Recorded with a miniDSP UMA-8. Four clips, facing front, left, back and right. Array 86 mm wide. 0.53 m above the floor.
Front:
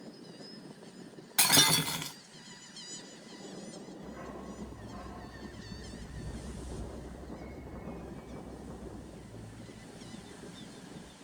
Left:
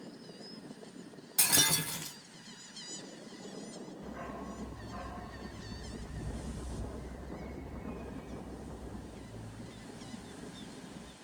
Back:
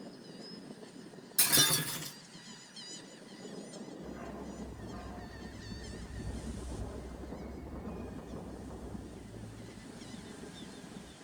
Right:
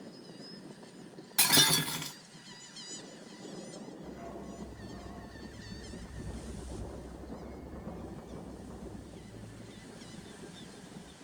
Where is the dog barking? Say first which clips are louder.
Left 4 dB, front 1 dB; 75° left, 1.3 m.